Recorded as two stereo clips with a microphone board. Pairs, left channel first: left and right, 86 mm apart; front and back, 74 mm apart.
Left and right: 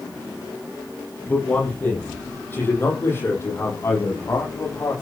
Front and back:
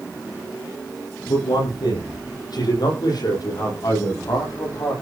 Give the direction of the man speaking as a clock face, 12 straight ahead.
11 o'clock.